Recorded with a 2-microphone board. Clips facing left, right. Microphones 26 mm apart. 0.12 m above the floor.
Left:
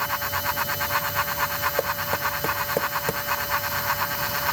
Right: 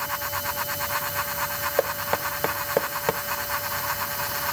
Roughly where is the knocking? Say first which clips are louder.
Even; right.